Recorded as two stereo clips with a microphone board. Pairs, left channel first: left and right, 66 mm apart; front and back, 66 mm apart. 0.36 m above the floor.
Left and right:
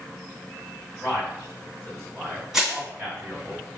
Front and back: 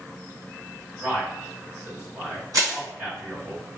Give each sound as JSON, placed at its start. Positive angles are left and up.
{"t": 1.0, "sound": "a man speaking", "azimuth_deg": -125, "distance_m": 1.8}
{"t": 2.5, "sound": "crushing", "azimuth_deg": -170, "distance_m": 1.8}